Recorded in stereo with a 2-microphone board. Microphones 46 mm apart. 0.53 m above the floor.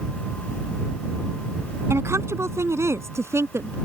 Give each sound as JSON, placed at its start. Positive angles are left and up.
{"t": 1.9, "sound": "a woman speaking", "side_deg": -80}